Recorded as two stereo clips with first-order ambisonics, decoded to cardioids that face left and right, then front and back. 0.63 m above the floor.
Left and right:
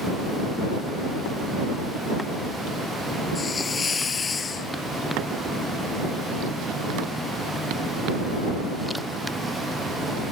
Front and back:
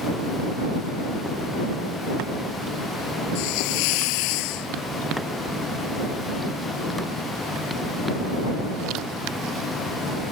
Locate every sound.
3.4 s a hiss: 15° left